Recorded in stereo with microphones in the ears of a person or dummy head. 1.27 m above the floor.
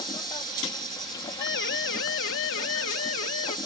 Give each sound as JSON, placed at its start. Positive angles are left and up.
{"t": 0.0, "sound": "an insect", "side_deg": 20}
{"t": 1.4, "sound": "a siren", "side_deg": 60}